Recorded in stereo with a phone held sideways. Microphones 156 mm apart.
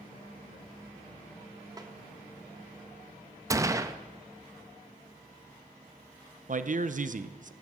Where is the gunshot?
20° right (ahead or behind), 0.6 m.